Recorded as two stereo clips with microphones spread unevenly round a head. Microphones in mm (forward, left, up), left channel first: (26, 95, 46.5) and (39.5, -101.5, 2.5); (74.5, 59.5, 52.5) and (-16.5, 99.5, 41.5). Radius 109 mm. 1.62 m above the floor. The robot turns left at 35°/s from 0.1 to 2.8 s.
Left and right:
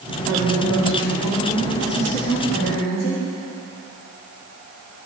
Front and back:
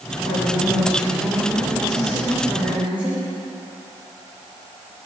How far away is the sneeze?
I don't hear a sneeze.